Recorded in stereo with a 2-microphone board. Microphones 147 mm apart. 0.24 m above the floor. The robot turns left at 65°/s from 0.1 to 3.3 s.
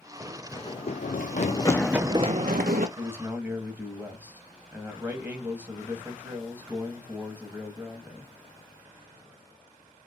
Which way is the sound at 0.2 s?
15° right (ahead or behind).